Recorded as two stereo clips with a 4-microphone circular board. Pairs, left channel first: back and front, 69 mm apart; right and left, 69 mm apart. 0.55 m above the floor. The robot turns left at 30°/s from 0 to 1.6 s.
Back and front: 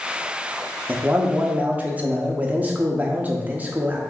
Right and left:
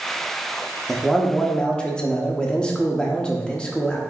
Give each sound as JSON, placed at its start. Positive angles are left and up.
{"t": 0.9, "sound": "a man speaking", "azimuth_deg": -10, "distance_m": 0.6}